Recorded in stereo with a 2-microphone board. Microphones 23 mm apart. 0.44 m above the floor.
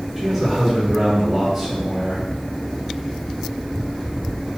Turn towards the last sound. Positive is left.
turn(degrees=-5)  # may be behind; listen again after turning